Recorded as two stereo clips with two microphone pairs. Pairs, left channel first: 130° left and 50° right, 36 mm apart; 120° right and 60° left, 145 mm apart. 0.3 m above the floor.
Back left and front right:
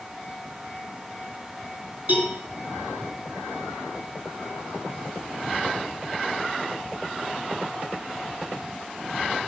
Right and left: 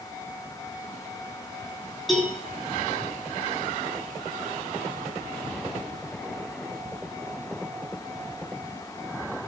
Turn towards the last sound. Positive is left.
turn(degrees=-30)